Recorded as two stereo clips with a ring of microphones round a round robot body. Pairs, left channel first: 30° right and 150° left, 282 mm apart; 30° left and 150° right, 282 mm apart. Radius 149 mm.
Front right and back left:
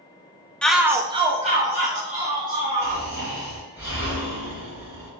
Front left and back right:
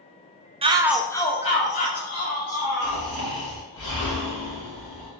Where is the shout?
110° right, 0.5 m; by 3.0 s 85° left, 1.7 m.